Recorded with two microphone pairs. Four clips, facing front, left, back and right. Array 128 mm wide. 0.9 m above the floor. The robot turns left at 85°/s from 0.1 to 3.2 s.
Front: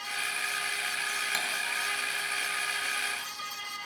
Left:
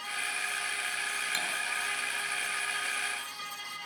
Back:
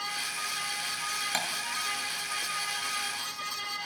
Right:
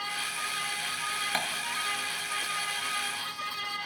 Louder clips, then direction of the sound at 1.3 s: Right 6 dB, back 3 dB; 115° right.